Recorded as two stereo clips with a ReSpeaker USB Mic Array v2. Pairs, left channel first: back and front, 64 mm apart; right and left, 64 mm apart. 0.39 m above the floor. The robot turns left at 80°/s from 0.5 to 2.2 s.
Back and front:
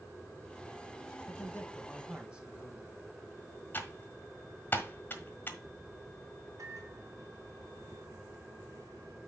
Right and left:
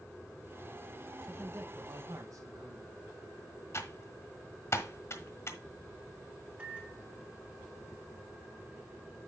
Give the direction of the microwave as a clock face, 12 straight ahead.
11 o'clock.